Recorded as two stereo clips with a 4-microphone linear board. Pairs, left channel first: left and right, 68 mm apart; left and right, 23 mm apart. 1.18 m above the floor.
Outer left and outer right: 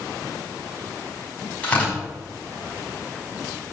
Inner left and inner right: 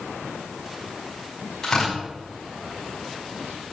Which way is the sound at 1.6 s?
20° left (ahead or behind).